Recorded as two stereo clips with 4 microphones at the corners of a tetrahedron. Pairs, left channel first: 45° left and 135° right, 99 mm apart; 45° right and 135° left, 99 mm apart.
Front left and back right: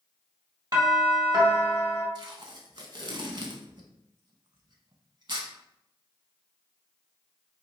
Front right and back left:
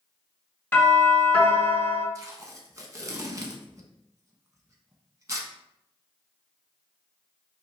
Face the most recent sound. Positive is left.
turn(degrees=-170)